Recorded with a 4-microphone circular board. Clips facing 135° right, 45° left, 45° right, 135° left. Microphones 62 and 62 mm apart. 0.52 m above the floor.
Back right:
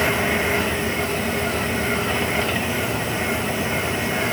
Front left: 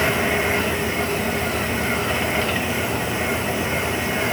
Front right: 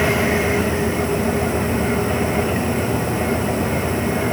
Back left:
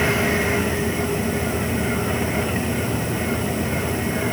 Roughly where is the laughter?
No laughter in this recording.